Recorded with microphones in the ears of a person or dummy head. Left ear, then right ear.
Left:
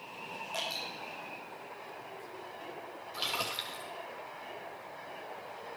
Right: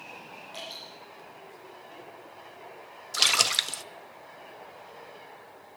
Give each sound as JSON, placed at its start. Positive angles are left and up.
{"t": 0.5, "sound": "dripping", "side_deg": 25, "distance_m": 9.0}
{"t": 3.1, "sound": "a splash", "side_deg": -60, "distance_m": 0.6}